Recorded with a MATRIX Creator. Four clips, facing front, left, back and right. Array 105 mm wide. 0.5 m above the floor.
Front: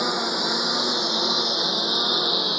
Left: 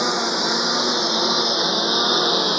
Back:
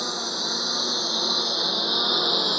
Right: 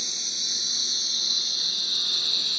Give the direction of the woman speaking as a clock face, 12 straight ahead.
No woman speaking in this recording.